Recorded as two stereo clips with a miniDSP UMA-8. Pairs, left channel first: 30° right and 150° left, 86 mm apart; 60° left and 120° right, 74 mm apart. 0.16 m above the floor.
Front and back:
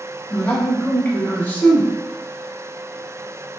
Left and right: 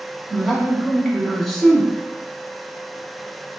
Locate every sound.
0.3 s a man speaking: 20° right, 1.0 m